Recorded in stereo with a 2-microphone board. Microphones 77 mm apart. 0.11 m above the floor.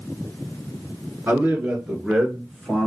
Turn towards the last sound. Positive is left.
turn(degrees=10)  # may be behind; listen again after turning